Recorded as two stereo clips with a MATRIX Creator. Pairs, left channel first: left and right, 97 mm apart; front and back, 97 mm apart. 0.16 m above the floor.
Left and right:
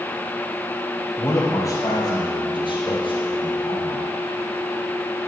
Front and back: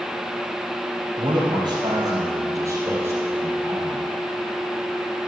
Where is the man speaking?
150° left, 4 m; by 4.0 s 105° left, 5 m.